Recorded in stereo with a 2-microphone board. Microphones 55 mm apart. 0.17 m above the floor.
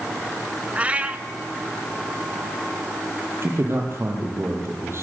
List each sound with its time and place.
0.8 s a cat meowing: 25° right (ahead or behind), 1.0 m
3.4 s a man speaking: 50° right (ahead or behind), 6 m